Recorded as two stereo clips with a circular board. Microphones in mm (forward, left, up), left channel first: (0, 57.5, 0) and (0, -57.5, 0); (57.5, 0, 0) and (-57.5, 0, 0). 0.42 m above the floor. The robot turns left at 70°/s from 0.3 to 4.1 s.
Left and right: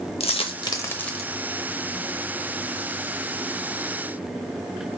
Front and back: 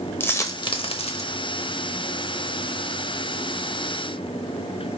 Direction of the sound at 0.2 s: 65° left.